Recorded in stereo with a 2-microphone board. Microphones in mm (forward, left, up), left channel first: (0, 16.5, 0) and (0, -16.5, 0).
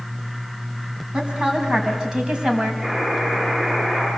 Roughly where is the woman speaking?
Right.